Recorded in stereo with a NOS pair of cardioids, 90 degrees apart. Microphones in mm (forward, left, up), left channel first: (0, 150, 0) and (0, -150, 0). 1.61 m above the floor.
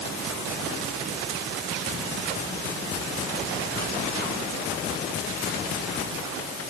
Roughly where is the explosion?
I don't hear an explosion.